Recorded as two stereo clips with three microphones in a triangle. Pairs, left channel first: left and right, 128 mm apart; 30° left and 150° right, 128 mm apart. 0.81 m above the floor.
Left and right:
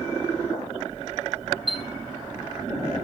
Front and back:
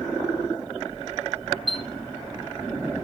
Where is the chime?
120° right, 0.9 m.